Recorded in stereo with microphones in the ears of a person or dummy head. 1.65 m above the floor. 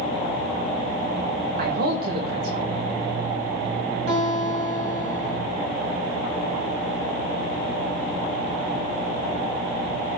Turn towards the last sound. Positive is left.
turn(degrees=-65)  # may be behind; listen again after turning